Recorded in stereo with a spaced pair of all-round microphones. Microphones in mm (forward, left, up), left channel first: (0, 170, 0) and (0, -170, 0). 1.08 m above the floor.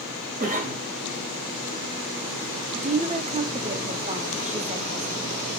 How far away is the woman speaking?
About 0.6 m.